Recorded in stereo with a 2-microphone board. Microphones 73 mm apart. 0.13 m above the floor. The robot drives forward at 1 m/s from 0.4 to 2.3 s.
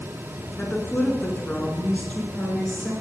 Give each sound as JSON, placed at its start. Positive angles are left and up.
{"t": 0.6, "sound": "a woman speaking", "side_deg": 25, "distance_m": 1.4}